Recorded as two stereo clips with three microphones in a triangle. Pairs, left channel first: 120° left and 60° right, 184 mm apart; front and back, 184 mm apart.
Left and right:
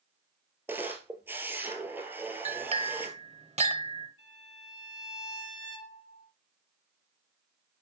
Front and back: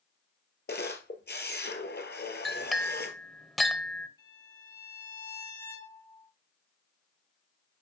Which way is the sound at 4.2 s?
70° right.